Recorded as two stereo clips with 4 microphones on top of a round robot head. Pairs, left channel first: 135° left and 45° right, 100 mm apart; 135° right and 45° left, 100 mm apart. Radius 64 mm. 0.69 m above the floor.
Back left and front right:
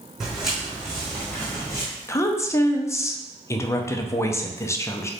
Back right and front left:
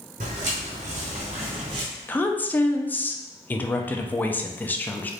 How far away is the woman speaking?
About 0.5 m.